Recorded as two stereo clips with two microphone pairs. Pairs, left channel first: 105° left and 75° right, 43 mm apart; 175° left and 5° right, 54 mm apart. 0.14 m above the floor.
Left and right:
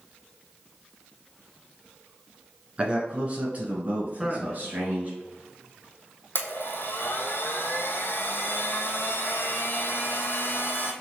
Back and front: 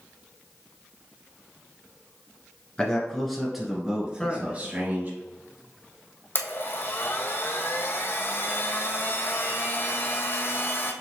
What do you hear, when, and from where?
2.8 s a man speaking: 120° right, 2 m; by 5.2 s 45° right, 3 m
4.2 s a man speaking: 130° right, 1.1 m
6.3 s a blender: 130° left, 0.8 m